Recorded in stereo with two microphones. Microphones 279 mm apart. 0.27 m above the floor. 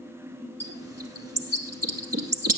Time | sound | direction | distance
0.6 | a bird | 60° right (ahead or behind) | 1.9 m